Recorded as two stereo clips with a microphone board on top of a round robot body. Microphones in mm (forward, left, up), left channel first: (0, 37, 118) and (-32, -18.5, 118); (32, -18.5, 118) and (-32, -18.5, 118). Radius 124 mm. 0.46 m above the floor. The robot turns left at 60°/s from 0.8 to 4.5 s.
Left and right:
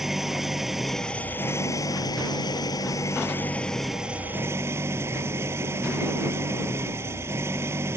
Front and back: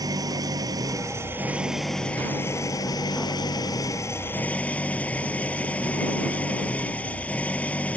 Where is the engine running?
155° left; by 8.0 s 70° right.